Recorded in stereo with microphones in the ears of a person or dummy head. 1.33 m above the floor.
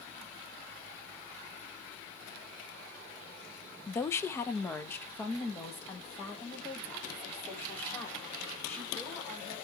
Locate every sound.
3.9 s a woman speaking: 20° left (ahead or behind), 0.6 m; by 9.6 s 15° left (ahead or behind), 4 m